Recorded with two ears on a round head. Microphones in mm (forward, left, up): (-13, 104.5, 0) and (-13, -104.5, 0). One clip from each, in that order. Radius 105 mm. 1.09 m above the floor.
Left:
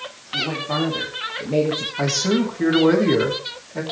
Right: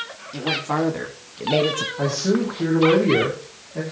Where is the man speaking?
35° left (ahead or behind), 2.5 m.